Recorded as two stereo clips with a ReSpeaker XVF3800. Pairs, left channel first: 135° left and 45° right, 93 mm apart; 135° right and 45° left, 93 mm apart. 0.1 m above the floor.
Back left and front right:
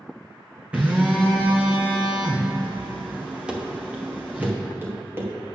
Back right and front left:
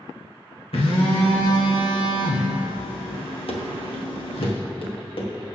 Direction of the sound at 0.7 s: 120° right.